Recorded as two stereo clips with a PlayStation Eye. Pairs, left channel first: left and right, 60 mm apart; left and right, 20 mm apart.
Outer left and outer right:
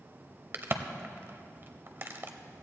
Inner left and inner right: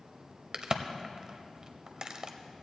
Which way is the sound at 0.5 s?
40° right (ahead or behind).